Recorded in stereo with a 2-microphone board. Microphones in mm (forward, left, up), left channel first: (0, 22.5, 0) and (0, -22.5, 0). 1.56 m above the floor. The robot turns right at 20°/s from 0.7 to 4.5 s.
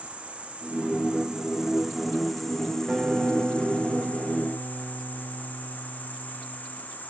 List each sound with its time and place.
0.0 s an insect: 30° right, 1.1 m; by 7.1 s 45° left, 1.1 m
2.9 s a guitar: 155° right, 1.2 m; by 6.6 s 120° right, 1.2 m